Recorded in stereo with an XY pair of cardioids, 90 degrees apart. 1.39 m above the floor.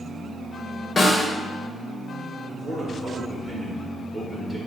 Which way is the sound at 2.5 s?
25° right.